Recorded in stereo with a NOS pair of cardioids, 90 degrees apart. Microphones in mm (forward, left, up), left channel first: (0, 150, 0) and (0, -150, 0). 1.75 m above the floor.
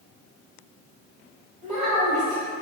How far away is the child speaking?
About 1.9 m.